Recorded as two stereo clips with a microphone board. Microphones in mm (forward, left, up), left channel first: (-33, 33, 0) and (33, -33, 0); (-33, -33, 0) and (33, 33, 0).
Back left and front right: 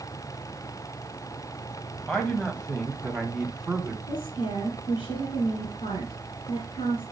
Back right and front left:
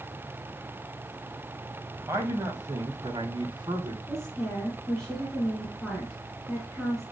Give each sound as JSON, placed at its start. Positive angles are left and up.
{"t": 2.1, "sound": "a man speaking", "azimuth_deg": 65, "distance_m": 1.8}
{"t": 4.1, "sound": "a woman speaking", "azimuth_deg": 140, "distance_m": 3.0}